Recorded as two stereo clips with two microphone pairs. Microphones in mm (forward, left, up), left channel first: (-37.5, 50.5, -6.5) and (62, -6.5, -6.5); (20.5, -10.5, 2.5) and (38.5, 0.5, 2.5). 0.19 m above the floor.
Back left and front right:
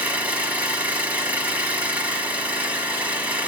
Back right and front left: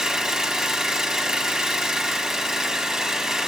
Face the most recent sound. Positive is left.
turn(degrees=30)